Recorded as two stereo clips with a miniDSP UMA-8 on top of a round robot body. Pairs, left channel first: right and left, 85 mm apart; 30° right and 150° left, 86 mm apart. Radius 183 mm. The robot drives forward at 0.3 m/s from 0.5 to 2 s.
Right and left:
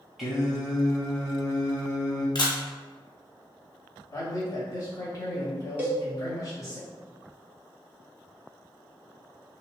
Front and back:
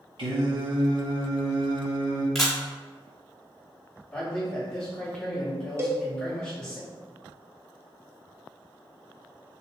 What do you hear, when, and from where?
0.2 s singing: straight behind, 0.8 m
2.4 s a camera shutter: 115° right, 1.2 m
4.1 s a man speaking: 105° right, 1.1 m
5.8 s a cowbell: 150° left, 0.9 m